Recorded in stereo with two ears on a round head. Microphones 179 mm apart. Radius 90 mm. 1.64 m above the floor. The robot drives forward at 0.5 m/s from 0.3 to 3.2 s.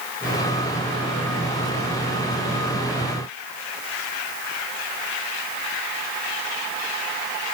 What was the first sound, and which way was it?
Only background noise.